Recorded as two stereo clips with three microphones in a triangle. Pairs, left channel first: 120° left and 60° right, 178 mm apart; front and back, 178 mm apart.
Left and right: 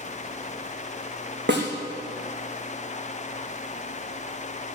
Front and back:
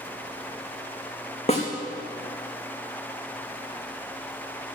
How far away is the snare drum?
About 3 m.